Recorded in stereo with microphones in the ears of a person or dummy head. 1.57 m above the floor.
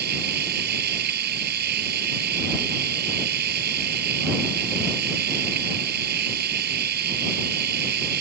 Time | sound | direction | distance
0.0 | a machine running | 55° right (ahead or behind) | ?